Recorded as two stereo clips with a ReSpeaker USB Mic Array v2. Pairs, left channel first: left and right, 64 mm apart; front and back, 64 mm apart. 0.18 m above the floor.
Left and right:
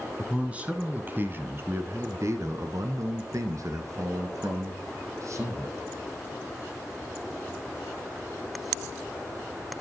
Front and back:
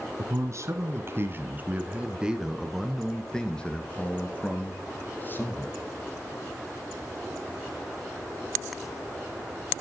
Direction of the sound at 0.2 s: 160° right.